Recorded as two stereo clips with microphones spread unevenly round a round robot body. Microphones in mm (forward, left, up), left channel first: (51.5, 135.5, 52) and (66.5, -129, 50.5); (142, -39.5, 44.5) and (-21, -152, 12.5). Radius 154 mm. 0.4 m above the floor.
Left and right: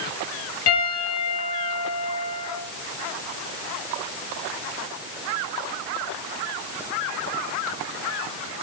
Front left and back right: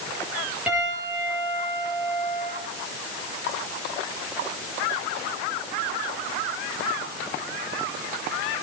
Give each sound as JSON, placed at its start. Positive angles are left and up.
{"t": 0.7, "sound": "a piano", "azimuth_deg": 130, "distance_m": 7.5}